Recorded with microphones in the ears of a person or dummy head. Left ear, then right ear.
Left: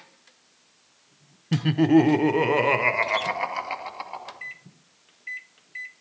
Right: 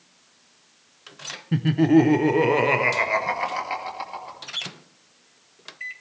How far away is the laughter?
About 0.7 m.